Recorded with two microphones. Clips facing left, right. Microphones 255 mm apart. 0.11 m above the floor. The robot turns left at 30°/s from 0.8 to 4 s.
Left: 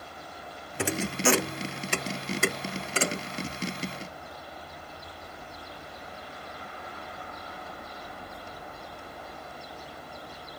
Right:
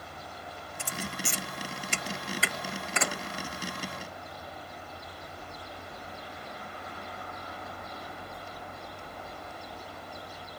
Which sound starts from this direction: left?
A thud, at 0.8 s.